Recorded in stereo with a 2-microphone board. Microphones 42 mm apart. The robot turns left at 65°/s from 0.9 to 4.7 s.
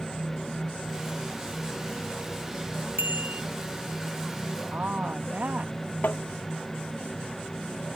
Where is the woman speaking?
40° right (ahead or behind).